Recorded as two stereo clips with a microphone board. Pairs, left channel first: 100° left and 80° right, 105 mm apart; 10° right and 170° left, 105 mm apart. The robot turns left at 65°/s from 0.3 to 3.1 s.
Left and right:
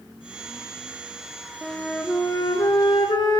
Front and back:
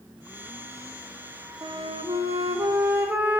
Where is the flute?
165° right, 0.5 m; by 3.4 s 100° left, 0.5 m.